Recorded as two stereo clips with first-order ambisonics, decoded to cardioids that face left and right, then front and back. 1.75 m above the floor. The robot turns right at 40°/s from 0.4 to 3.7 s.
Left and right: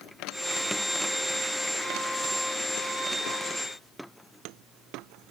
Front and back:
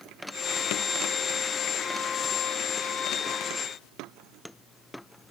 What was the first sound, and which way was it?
Only background noise.